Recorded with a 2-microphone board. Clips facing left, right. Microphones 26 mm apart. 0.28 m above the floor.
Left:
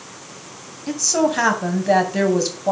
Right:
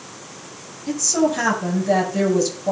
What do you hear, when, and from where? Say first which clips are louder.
0.9 s a woman speaking: even; 30° left (ahead or behind), 2.5 m